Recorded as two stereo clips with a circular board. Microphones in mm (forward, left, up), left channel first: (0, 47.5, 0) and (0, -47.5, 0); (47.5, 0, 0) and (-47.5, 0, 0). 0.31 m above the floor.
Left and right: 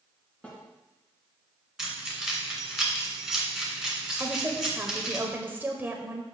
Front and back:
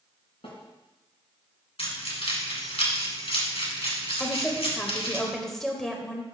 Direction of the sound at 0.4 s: 15° left.